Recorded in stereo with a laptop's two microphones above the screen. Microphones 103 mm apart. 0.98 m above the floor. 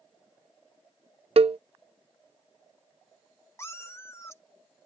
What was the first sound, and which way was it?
A cowbell, 80° right.